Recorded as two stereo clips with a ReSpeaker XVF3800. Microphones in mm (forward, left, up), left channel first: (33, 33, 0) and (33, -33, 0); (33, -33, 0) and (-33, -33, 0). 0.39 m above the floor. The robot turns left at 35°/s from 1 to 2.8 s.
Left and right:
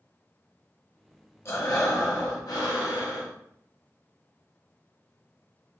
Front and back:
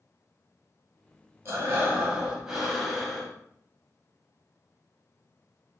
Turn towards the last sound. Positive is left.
turn(degrees=85)